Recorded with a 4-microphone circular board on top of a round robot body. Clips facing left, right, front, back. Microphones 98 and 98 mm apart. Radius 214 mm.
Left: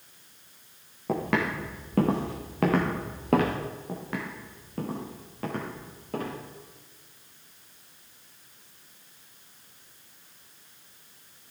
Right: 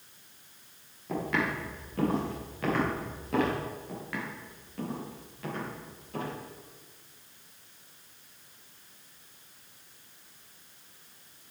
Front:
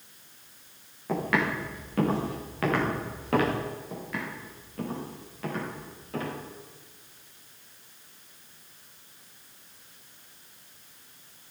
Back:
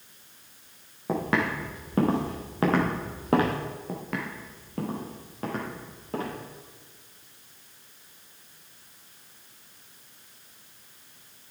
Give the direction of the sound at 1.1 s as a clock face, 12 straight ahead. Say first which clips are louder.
Left 3 dB, back 1 dB; 8 o'clock.